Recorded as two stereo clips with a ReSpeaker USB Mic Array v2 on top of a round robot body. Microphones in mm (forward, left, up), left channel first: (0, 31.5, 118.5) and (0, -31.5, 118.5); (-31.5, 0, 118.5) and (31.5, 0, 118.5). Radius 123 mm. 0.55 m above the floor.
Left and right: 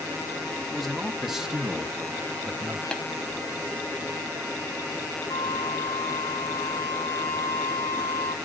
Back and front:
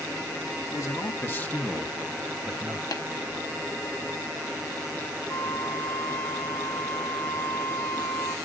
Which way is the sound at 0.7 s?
Straight behind.